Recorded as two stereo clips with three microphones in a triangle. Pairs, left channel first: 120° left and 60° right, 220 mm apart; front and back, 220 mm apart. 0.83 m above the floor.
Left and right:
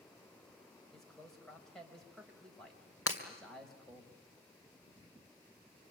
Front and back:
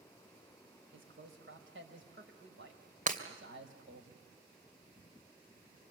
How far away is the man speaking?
About 4.5 m.